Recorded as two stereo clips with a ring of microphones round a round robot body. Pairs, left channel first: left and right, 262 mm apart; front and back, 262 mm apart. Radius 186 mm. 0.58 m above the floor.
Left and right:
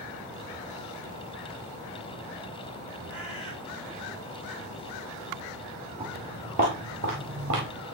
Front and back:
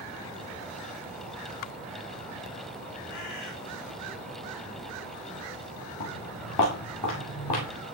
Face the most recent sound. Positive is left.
turn(degrees=-35)